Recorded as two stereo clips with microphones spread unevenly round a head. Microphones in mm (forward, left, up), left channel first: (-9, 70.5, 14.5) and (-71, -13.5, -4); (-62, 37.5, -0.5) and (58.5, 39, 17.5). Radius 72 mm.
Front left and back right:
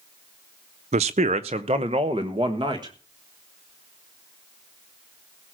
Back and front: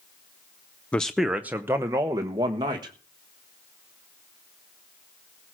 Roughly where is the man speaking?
Right.